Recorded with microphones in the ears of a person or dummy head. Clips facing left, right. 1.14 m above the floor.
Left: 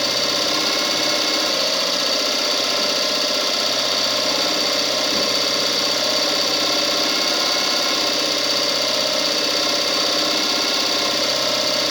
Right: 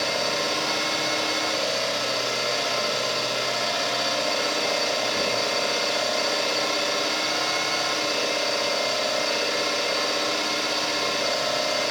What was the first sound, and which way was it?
An engine running, 60° left (ahead or behind).